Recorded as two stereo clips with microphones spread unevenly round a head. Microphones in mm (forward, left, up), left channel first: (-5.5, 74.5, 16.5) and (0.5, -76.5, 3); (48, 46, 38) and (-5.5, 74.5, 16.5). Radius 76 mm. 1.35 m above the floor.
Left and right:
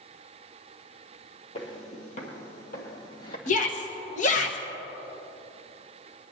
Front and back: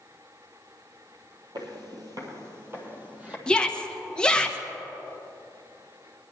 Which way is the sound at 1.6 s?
140° left.